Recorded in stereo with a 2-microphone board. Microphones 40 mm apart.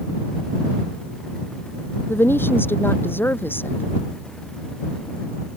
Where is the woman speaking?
65° left (ahead or behind); by 3.8 s 60° left (ahead or behind).